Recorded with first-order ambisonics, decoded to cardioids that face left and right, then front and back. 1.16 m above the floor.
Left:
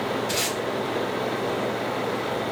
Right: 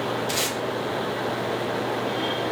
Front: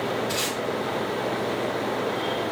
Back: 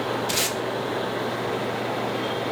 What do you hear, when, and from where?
0.3 s tape being pulled: 170° right, 0.5 m